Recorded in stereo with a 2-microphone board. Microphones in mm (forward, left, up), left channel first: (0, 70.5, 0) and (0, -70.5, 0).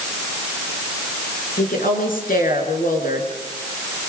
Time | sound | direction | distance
1.6 | a woman speaking | 80° left | 5 m